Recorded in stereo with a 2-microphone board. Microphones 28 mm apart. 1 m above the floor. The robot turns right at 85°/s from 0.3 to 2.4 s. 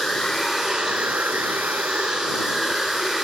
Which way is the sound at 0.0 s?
165° left.